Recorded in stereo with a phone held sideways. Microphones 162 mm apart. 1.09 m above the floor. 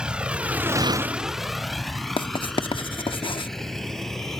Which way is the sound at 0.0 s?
5° right (ahead or behind).